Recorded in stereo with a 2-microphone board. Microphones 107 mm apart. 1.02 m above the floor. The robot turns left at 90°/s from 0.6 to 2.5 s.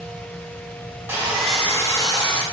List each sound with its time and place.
1.1 s sawing: 150° right, 0.7 m; by 2.4 s 90° left, 0.7 m